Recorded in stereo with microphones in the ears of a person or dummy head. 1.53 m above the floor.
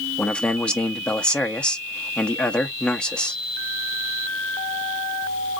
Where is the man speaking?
5° left (ahead or behind), 0.7 m.